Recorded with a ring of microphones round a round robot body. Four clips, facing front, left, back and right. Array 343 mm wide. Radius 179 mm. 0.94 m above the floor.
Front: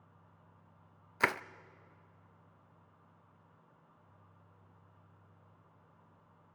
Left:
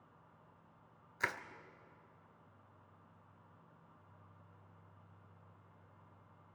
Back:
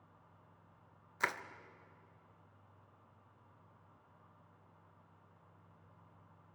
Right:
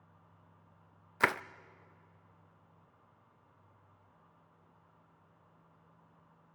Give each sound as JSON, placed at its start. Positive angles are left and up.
{"t": 1.2, "sound": "crushing", "azimuth_deg": -55, "distance_m": 0.5}